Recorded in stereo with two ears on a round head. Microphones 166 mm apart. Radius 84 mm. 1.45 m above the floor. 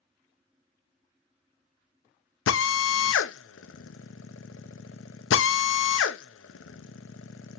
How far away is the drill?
About 0.6 m.